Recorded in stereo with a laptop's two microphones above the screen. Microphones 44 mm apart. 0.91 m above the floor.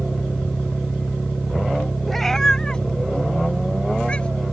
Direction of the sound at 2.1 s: Centre (ahead or behind).